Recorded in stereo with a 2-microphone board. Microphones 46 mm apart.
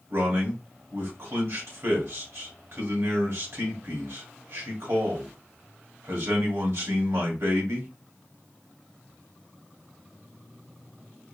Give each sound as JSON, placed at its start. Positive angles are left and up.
{"t": 0.1, "sound": "a man speaking", "side_deg": -65, "distance_m": 2.0}